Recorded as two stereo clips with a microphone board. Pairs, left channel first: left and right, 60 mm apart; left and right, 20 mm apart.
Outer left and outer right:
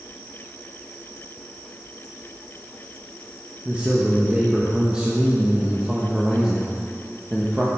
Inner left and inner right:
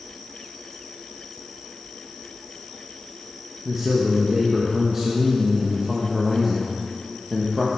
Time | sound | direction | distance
3.6 | a man speaking | 15° right (ahead or behind) | 1.0 m